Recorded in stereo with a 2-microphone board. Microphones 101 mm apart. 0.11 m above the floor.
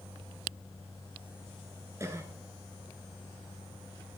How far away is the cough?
About 1.3 m.